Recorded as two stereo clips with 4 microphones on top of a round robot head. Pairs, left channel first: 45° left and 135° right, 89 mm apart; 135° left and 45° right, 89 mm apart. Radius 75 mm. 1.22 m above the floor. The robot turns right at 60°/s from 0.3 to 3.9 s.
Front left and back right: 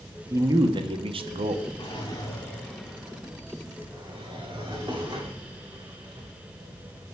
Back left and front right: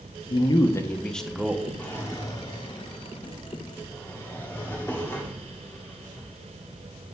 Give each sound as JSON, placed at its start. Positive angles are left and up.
{"t": 0.3, "sound": "a man speaking", "azimuth_deg": 165, "distance_m": 0.8}
{"t": 1.8, "sound": "a drawer", "azimuth_deg": 70, "distance_m": 0.9}